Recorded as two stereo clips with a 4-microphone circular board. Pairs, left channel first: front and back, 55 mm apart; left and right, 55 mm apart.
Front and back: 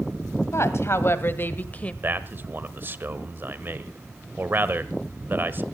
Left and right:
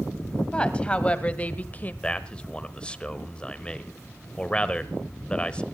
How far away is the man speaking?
About 1.2 m.